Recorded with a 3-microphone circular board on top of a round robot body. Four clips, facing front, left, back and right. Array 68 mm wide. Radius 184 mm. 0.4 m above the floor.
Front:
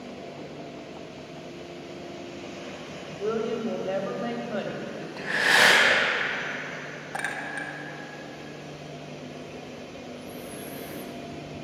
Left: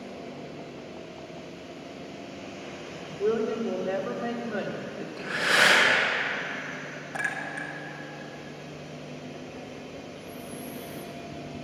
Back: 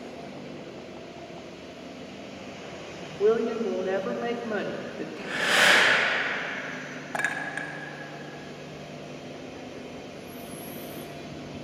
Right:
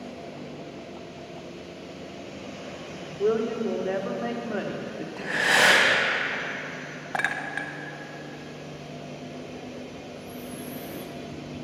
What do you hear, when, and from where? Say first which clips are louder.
3.2 s a woman speaking: right 2 dB, back 5 dB; 145° right, 1.6 m
5.2 s breathing: right 2 dB, front 3 dB; 55° right, 3 m
7.1 s a clink: right 4 dB, back 2 dB; 105° right, 0.9 m
10.1 s breathing: right 2 dB, front 1 dB; 35° right, 1.3 m